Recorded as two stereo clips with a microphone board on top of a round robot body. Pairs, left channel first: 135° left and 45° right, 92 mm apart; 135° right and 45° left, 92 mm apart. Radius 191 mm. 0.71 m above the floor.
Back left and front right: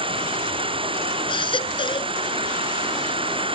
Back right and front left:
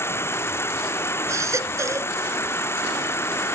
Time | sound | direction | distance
0.0 | an insect | 70° right | ?
1.3 | a baby crying | 105° left | ?